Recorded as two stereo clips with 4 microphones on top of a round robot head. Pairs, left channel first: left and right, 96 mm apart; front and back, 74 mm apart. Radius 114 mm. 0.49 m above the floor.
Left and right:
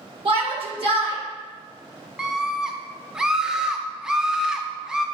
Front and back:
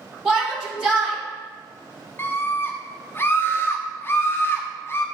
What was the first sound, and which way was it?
A shout, 95° right.